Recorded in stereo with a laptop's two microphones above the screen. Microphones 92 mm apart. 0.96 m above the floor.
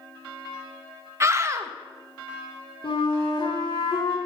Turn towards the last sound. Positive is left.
turn(degrees=65)  # may be behind; listen again after turning